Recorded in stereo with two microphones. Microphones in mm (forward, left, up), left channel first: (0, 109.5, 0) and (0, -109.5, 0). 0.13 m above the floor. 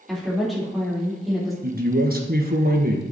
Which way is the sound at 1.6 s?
45° right (ahead or behind).